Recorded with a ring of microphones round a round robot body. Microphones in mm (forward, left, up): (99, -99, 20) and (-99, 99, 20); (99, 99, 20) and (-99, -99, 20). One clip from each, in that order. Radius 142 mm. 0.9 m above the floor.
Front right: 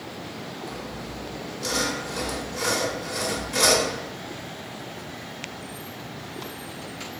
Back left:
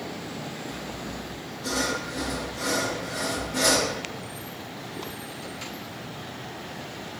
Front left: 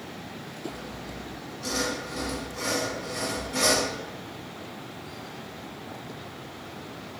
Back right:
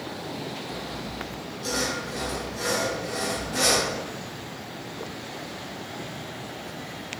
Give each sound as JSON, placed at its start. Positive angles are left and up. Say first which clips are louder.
{"t": 0.7, "sound": "sawing", "louder": "even, back right 4 dB", "azimuth_deg": -45, "distance_m": 0.8}